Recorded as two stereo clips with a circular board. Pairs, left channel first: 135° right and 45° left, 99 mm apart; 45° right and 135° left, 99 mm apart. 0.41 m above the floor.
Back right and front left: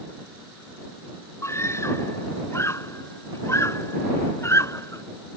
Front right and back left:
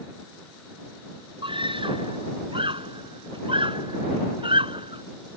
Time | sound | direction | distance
1.4 | a scream | 165° left | ?